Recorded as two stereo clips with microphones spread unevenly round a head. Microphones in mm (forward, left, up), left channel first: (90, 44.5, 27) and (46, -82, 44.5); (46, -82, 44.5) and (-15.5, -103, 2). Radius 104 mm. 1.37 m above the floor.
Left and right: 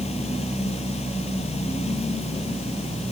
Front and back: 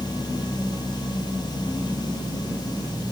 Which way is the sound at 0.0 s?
30° left.